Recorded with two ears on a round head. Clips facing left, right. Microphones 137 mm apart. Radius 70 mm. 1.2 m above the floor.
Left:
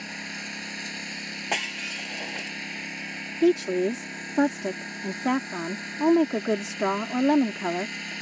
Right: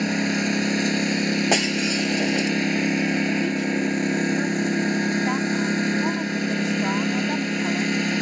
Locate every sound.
0.0 s a lawn mower: 70° right (ahead or behind)
1.5 s breaking glass: 50° right (ahead or behind)
3.4 s a woman speaking: 60° left (ahead or behind)